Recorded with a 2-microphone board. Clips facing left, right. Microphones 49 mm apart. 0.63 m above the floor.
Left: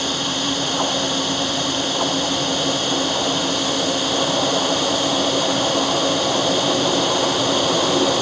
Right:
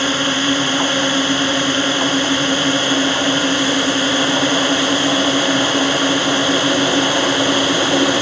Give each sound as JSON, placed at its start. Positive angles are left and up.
{"t": 0.0, "sound": "a drone", "side_deg": -45}